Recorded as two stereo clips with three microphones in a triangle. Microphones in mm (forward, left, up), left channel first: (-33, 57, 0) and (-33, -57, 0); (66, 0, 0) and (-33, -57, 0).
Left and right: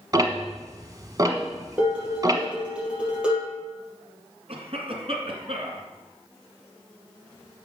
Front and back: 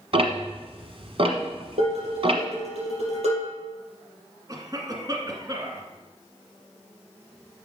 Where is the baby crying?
I don't hear a baby crying.